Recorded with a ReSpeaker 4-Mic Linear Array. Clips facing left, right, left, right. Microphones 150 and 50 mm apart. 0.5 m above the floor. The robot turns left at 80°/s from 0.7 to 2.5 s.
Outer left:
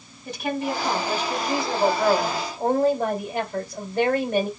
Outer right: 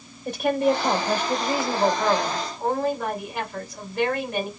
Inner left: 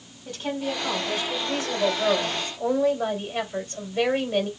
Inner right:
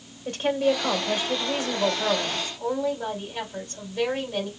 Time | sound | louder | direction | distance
0.2 | a woman speaking | outer right 6 dB, inner right 6 dB | 80° right | 2.5 m